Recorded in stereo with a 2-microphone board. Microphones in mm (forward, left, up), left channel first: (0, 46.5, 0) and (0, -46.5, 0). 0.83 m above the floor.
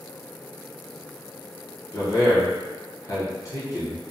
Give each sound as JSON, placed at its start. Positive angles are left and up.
{"t": 1.9, "sound": "a man speaking", "side_deg": 35, "distance_m": 0.6}